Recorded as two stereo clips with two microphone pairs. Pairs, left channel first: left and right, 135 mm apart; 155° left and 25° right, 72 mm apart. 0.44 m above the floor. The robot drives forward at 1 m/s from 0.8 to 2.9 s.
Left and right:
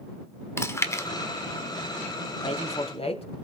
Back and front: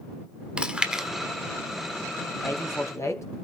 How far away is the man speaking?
About 3 m.